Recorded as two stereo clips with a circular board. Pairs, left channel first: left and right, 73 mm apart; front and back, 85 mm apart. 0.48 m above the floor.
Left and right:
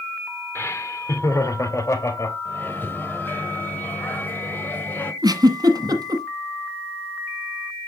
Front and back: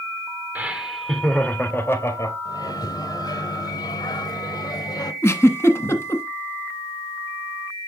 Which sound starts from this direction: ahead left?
A microwave, at 2.5 s.